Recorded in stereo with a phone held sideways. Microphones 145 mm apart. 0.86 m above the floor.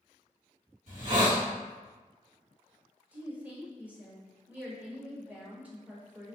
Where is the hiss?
55° right (ahead or behind), 1.7 m.